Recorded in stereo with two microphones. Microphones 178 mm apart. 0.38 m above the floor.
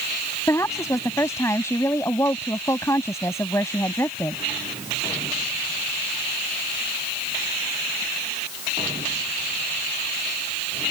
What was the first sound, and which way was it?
A woman speaking, 15° left (ahead or behind).